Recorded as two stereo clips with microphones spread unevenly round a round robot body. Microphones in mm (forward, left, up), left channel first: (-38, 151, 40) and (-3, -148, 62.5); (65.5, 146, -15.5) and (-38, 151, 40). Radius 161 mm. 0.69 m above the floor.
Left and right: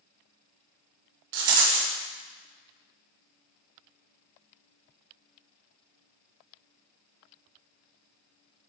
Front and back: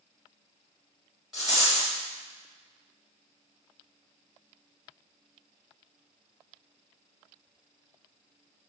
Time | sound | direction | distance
1.3 | a rattle | 95° right | 1.1 m